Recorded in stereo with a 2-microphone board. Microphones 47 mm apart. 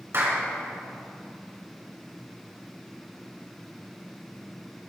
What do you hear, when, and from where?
0.1 s a clap: 55° right (ahead or behind), 2 m